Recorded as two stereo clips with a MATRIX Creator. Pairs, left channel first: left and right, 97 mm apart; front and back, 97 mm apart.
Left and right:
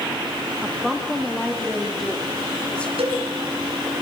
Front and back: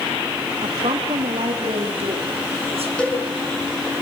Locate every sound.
0.6 s a woman speaking: 170° right, 2.5 m; by 2.9 s 170° left, 4 m
3.0 s a cowbell: 80° right, 5 m